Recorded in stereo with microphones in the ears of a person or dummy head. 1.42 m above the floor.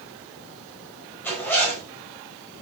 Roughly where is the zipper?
Centre.